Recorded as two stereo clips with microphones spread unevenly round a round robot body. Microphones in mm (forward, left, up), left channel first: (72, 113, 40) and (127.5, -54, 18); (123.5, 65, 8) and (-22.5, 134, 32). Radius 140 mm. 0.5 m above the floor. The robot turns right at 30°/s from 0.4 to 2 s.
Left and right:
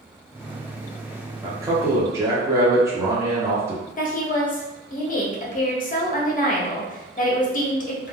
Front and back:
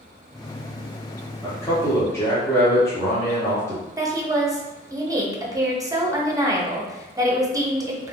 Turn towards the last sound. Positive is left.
turn(degrees=85)